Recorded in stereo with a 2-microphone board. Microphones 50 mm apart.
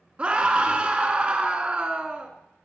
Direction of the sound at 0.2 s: 25° right (ahead or behind).